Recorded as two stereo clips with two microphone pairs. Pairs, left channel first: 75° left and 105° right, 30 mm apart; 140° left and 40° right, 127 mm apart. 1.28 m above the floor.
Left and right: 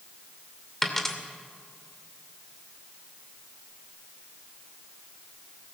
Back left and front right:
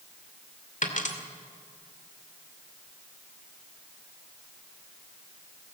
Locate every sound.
0.8 s a dropped coin: 155° left, 2 m